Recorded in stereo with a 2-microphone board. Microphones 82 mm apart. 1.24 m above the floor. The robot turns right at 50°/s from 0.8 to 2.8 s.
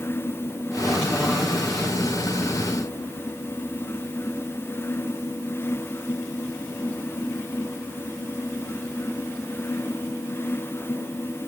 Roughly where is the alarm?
No alarm in this recording.